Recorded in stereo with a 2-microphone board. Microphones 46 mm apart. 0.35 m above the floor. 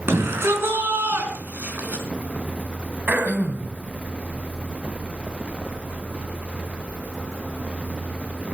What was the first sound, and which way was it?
A shout, 70° right (ahead or behind).